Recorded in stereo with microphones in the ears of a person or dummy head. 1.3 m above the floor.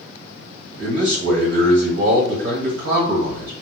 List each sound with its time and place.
0.8 s a man speaking: 65° right (ahead or behind), 1.7 m